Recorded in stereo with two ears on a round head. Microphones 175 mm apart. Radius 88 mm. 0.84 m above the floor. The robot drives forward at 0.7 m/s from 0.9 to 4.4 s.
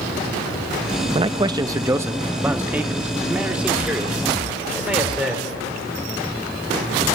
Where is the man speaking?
30° right (ahead or behind), 0.5 m; by 5.5 s 5° right (ahead or behind), 2.5 m.